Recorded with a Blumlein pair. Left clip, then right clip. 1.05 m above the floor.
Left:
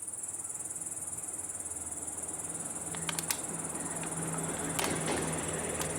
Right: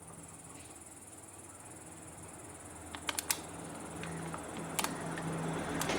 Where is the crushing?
Straight ahead.